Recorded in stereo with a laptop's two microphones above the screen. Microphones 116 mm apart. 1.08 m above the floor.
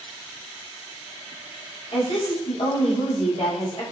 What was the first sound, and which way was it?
A woman speaking, 55° left (ahead or behind).